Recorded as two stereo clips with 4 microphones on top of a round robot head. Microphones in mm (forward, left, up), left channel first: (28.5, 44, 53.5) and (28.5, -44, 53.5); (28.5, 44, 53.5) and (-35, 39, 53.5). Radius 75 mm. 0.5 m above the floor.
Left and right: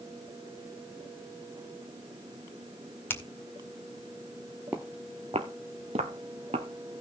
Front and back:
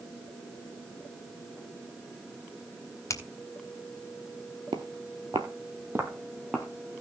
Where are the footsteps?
170° right, 0.7 m; by 7.0 s 85° right, 1.2 m.